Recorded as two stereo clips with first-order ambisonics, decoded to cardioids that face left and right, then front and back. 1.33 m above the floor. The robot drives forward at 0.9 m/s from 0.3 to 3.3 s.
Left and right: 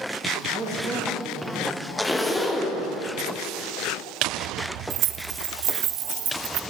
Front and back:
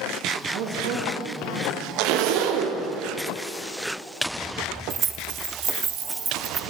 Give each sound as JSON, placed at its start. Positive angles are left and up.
{"t": 0.5, "sound": "a woman speaking", "azimuth_deg": -155, "distance_m": 1.4}
{"t": 2.0, "sound": "a zipper", "azimuth_deg": 175, "distance_m": 0.8}
{"t": 4.9, "sound": "keys jangling", "azimuth_deg": -120, "distance_m": 0.6}